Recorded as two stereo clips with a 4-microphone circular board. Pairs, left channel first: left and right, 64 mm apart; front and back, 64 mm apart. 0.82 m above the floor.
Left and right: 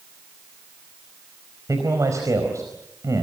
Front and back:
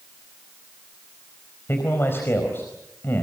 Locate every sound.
1.7 s a man speaking: 55° right, 4.5 m